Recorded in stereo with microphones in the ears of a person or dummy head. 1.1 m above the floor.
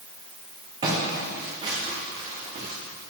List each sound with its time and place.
0.8 s footsteps: 25° right (ahead or behind), 3 m; by 2.7 s 30° right (ahead or behind), 4.5 m